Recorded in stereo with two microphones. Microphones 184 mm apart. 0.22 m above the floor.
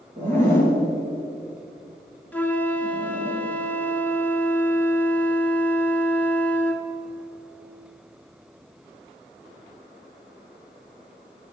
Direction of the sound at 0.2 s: 40° right (ahead or behind).